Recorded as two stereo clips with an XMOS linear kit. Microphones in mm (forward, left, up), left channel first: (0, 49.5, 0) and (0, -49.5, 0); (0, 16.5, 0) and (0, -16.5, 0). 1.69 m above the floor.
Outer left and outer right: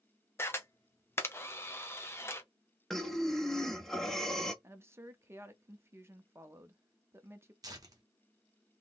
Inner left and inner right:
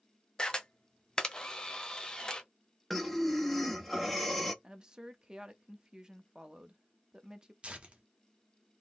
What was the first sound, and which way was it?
A camera shutter, 25° left (ahead or behind).